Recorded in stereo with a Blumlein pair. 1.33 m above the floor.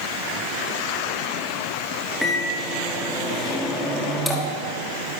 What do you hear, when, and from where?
2.2 s a microwave: 5° left, 1.5 m